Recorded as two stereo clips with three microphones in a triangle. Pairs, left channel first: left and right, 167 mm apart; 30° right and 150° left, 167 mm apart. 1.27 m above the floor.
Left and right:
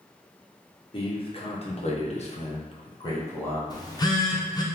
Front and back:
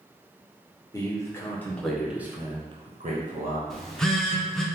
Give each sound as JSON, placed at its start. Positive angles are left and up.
{"t": 0.9, "sound": "a man speaking", "azimuth_deg": 35, "distance_m": 1.1}
{"t": 3.7, "sound": "a phone buzzing", "azimuth_deg": 55, "distance_m": 0.5}